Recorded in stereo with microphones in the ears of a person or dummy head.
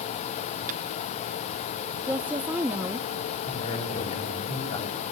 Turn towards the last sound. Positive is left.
turn(degrees=40)  # may be behind; listen again after turning